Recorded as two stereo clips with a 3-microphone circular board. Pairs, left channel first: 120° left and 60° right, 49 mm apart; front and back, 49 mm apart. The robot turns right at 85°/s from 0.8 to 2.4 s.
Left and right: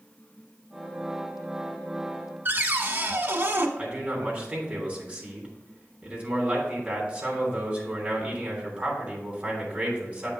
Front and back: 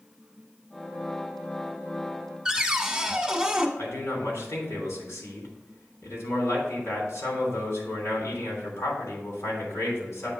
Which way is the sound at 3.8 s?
10° left.